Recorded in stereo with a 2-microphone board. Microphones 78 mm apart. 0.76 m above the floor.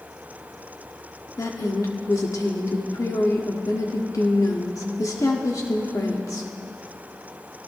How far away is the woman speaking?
About 1.3 m.